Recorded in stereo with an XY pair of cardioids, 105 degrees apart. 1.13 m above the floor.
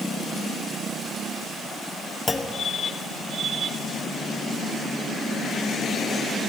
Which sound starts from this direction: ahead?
A clunk, at 2.3 s.